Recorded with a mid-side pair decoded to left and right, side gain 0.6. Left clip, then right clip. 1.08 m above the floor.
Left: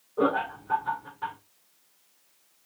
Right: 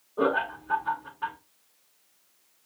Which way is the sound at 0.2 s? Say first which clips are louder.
Even; 5° right.